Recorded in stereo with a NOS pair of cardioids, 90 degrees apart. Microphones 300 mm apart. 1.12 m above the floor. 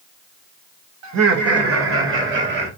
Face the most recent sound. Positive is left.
turn(degrees=-35)